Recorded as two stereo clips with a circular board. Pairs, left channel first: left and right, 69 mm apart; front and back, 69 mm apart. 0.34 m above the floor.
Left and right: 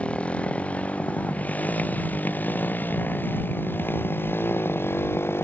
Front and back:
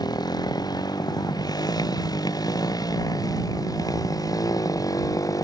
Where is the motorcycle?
15° left; by 5.4 s 35° left.